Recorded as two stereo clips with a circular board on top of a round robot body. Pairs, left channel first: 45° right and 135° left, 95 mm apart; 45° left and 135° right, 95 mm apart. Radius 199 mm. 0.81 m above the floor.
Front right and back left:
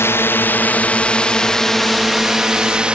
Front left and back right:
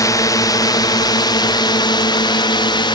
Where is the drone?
10° left; by 3.0 s 60° left.